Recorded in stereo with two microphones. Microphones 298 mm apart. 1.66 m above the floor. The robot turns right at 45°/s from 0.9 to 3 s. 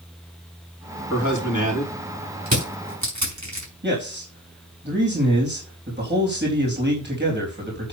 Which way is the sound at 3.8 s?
35° right (ahead or behind).